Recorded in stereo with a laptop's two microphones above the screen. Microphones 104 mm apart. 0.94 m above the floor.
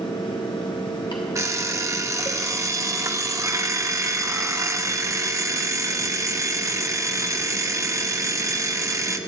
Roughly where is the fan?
Left.